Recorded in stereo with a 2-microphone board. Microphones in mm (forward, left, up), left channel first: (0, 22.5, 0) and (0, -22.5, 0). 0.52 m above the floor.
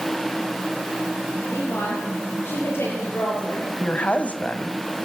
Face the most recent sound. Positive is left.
turn(degrees=30)  # may be behind; listen again after turning